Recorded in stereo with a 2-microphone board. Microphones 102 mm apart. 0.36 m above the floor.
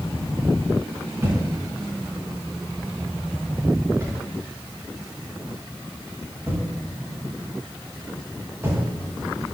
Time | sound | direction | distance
1.2 | a thud | 25° right (ahead or behind) | 9.5 m